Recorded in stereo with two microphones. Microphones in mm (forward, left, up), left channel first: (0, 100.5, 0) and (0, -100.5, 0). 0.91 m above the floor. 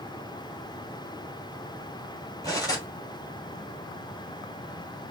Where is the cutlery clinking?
20° left (ahead or behind), 3 m.